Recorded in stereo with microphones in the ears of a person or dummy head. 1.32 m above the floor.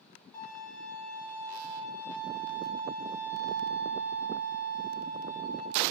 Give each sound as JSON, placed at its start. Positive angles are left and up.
{"t": 0.3, "sound": "a violin", "side_deg": 15, "distance_m": 0.6}